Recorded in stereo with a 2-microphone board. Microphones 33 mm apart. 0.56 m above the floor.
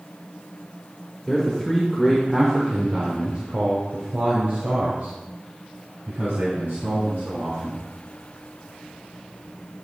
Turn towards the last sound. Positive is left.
turn(degrees=-80)